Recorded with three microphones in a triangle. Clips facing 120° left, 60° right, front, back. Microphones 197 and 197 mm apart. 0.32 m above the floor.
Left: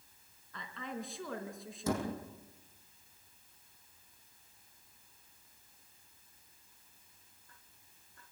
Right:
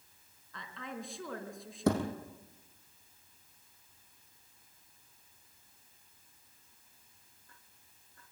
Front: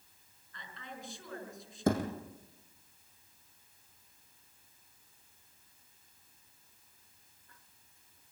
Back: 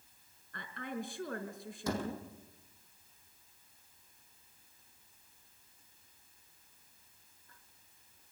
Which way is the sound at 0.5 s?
150° right.